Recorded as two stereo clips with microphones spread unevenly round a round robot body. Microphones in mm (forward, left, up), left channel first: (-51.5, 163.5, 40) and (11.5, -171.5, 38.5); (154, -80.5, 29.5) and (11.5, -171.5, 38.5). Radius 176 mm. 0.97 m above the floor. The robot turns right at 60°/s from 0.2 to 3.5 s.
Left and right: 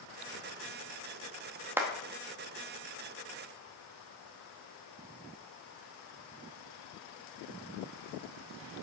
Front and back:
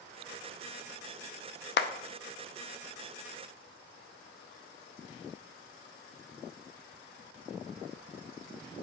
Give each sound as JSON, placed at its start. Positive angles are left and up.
{"t": 1.8, "sound": "a clap", "azimuth_deg": 5, "distance_m": 0.8}